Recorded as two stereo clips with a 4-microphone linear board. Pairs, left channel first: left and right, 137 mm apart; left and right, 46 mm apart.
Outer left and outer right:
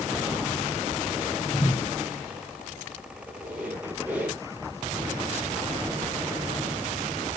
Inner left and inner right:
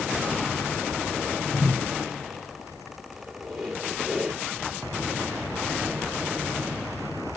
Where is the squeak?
10° right (ahead or behind), 3 m.